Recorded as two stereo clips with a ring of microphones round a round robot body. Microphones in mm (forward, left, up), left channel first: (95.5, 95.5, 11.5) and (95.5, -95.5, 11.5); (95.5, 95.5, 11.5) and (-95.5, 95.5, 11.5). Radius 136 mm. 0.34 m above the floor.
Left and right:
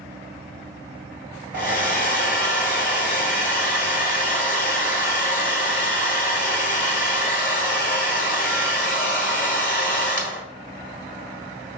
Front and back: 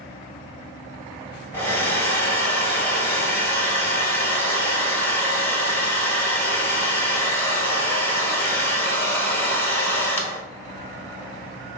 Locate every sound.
1.5 s a hair dryer: 75° left, 1.7 m